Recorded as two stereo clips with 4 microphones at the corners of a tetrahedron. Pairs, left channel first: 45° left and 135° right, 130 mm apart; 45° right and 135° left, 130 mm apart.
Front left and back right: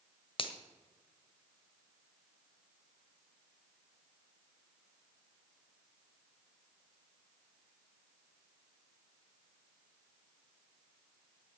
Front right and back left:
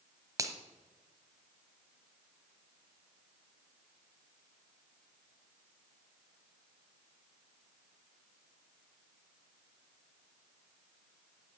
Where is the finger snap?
80° left, 1.3 m.